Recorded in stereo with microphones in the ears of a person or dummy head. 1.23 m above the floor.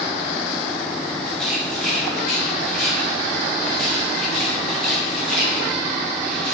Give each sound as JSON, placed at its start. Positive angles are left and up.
{"t": 1.3, "sound": "a rattle", "side_deg": 5, "distance_m": 6.0}